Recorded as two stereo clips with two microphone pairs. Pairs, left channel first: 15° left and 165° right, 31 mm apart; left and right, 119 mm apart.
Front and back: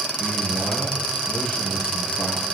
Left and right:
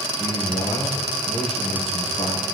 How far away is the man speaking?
About 5.5 m.